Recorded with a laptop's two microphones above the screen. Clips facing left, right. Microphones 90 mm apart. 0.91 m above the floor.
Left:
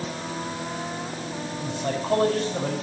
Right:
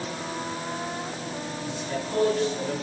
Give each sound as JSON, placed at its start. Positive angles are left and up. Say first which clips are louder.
{"t": 1.6, "sound": "a man speaking", "louder": "left 5 dB", "side_deg": 75, "distance_m": 5.0}